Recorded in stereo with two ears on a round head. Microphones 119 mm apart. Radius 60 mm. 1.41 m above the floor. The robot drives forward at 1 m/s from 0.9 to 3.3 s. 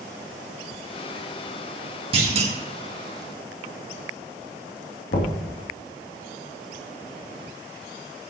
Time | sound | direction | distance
2.1 | a clunk | 40° right (ahead or behind) | 1.9 m
5.1 | knocking | 80° left | 2.5 m